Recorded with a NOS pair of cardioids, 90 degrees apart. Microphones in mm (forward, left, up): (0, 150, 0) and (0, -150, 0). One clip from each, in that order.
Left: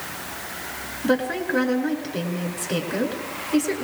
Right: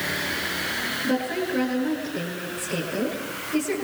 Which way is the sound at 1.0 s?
65° left.